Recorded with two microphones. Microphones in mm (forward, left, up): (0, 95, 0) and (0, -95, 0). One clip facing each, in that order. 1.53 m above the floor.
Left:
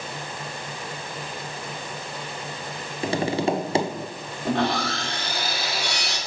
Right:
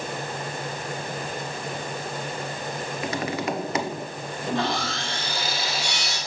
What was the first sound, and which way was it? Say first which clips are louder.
Tapping: left 6 dB; 30° left (ahead or behind).